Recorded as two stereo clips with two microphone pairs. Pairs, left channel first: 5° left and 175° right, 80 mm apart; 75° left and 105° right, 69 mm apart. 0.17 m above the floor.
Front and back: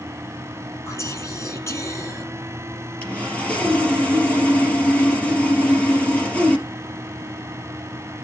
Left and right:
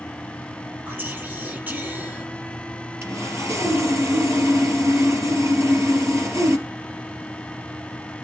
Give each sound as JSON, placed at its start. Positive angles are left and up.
{"t": 0.9, "sound": "whispering", "azimuth_deg": -50, "distance_m": 4.5}
{"t": 3.0, "sound": "sawing", "azimuth_deg": -65, "distance_m": 3.5}